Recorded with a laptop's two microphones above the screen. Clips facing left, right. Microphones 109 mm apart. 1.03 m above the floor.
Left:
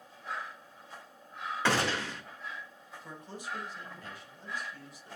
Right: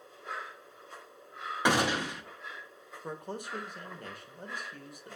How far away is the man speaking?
About 0.8 m.